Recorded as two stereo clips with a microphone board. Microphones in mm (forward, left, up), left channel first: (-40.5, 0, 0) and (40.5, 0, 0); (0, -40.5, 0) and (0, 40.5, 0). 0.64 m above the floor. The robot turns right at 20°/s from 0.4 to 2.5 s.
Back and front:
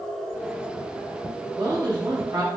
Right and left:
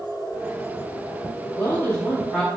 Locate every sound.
1.6 s a woman speaking: 25° right, 0.8 m; by 2.6 s 10° right, 0.8 m